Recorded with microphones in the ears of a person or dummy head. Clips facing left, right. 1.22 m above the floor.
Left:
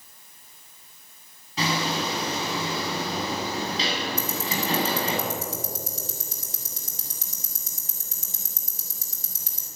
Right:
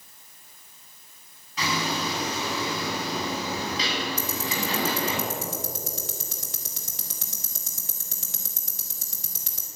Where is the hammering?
25° left (ahead or behind), 8 m.